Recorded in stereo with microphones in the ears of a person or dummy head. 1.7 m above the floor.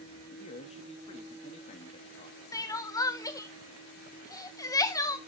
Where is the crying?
20° left (ahead or behind), 0.7 m.